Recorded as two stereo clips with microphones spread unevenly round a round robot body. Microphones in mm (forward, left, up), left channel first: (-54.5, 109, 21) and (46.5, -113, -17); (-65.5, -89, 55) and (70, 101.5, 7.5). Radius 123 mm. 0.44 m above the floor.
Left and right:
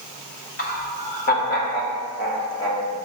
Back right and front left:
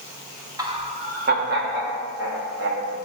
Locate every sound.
0.6 s laughter: 80° left, 0.9 m; by 3.0 s 55° left, 2 m